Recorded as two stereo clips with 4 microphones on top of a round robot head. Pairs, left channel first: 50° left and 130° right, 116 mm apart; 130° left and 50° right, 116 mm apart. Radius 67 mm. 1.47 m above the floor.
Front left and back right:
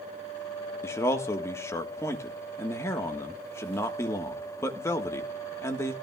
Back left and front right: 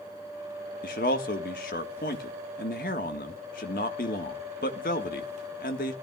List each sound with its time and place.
0.8 s a man speaking: 120° left, 1.5 m